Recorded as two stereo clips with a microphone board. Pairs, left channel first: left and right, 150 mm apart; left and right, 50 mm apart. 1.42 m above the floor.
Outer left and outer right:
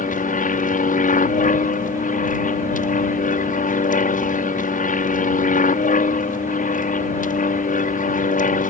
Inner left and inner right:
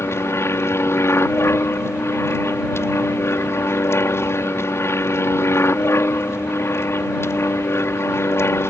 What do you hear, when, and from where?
0.0 s an aircraft: 55° left (ahead or behind)